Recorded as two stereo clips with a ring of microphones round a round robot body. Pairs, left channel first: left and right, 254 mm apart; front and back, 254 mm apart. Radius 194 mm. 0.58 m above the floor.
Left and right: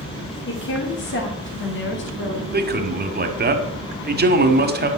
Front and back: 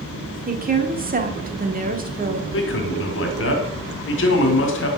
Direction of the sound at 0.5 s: 130° left.